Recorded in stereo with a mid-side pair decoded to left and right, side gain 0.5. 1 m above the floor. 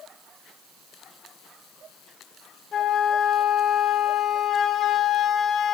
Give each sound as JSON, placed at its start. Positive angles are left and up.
{"t": 2.7, "sound": "a flute", "azimuth_deg": 50, "distance_m": 3.0}